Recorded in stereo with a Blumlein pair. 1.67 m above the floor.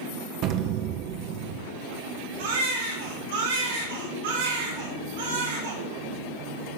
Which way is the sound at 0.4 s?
40° right.